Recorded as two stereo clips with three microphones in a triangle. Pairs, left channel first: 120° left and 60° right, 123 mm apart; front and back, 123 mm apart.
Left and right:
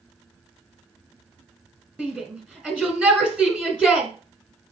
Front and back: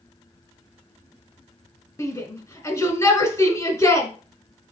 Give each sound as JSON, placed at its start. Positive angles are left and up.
{"t": 2.0, "sound": "a shout", "azimuth_deg": 5, "distance_m": 1.5}